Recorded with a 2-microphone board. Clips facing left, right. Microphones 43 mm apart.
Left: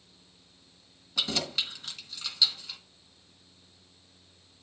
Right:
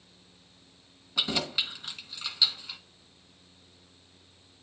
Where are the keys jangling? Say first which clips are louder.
Right 1 dB; 10° right (ahead or behind), 1.8 m.